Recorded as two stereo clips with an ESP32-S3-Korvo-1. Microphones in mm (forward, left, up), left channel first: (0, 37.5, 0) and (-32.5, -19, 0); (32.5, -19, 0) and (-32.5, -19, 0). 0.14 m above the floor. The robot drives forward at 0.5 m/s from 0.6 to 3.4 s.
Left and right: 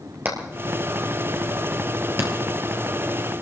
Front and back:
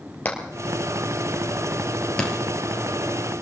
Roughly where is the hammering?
Ahead right.